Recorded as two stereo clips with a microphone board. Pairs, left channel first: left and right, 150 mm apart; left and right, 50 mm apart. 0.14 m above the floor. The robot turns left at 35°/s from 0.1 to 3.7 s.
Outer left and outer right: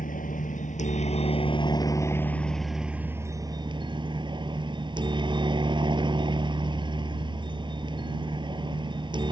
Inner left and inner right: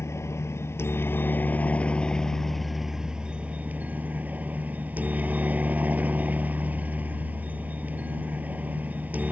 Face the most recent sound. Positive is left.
turn(degrees=-35)